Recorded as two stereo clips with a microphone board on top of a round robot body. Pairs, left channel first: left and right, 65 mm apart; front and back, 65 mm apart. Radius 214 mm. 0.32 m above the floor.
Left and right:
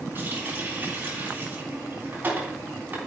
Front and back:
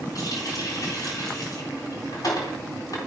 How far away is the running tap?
About 3.5 m.